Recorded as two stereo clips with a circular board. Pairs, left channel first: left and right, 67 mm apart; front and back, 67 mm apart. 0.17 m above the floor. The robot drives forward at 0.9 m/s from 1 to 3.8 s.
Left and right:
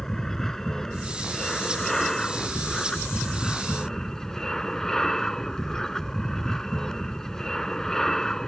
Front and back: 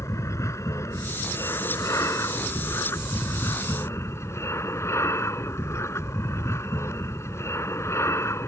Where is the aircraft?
10° left.